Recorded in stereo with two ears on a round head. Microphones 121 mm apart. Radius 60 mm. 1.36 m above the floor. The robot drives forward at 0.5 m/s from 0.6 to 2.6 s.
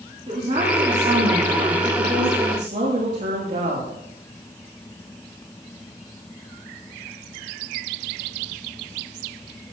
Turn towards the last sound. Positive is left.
turn(degrees=-50)  # may be behind; listen again after turning